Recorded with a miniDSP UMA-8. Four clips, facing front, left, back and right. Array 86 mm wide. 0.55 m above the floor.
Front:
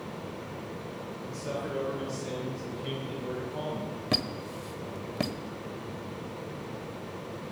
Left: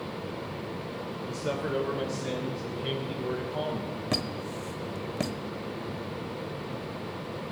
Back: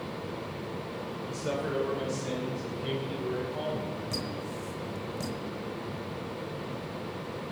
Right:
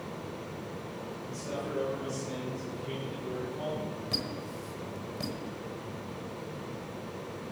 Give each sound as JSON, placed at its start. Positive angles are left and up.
{"t": 1.3, "sound": "a man speaking", "azimuth_deg": 115, "distance_m": 2.5}
{"t": 4.1, "sound": "a squeak", "azimuth_deg": 40, "distance_m": 1.0}